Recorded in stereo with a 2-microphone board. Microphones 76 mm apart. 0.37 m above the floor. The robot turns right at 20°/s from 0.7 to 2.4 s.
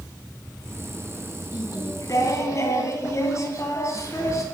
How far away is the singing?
About 2.5 m.